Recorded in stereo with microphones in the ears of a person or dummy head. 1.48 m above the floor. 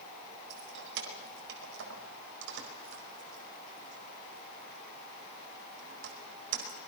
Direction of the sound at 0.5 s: 70° right (ahead or behind).